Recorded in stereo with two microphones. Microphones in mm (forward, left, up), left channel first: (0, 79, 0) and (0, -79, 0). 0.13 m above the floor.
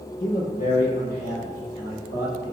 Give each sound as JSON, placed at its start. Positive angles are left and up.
{"t": 0.2, "sound": "a man speaking", "side_deg": 70, "distance_m": 3.5}